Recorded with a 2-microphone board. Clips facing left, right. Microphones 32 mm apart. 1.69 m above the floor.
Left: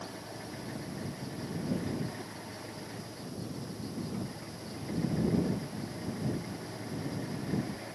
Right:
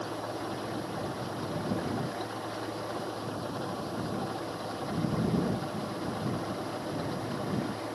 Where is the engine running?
85° right.